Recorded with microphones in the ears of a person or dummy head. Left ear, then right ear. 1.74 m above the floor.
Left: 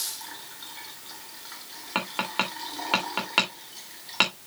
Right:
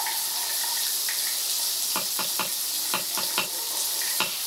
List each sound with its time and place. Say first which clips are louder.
1.9 s tapping: left 1 dB; 15° left (ahead or behind), 2.5 m